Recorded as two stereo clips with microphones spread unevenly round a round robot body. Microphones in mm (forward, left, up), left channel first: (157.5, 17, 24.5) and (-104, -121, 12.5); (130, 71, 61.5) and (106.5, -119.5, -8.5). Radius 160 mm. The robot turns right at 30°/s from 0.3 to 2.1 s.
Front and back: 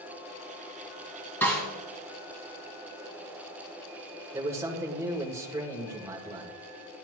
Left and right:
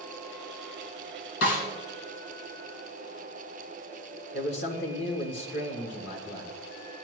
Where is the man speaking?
130° left, 1.7 m.